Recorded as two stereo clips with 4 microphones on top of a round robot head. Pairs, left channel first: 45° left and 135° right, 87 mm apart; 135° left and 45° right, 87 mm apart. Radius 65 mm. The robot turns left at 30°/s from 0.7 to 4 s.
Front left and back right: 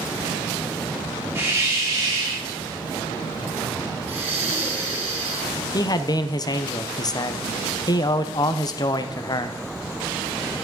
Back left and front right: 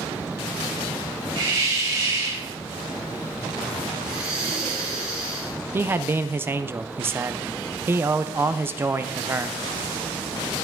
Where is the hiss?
70° right, 4 m; by 2.5 s 100° right, 4 m.